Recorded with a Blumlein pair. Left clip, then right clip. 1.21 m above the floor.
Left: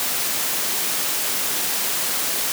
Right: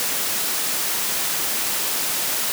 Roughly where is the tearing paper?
I don't hear tearing paper.